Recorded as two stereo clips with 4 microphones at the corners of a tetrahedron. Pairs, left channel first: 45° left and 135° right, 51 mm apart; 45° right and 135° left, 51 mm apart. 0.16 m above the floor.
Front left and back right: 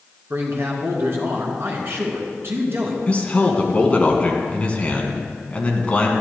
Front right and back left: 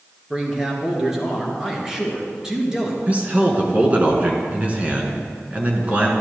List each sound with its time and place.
0.3 s a man speaking: 150° right, 1.7 m
3.1 s a man speaking: 95° left, 1.5 m